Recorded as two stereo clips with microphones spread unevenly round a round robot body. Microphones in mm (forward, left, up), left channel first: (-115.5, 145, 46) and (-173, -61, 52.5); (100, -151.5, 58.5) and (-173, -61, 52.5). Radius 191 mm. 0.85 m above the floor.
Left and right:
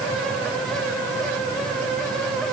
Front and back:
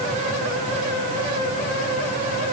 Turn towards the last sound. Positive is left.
No sound to turn to.